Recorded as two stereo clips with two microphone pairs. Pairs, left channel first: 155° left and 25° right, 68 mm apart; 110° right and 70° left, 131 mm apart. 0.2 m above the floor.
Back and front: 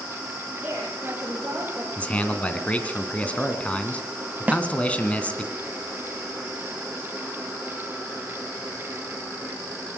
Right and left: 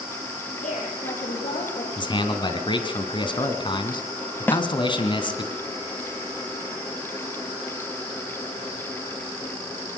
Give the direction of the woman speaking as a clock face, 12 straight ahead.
3 o'clock.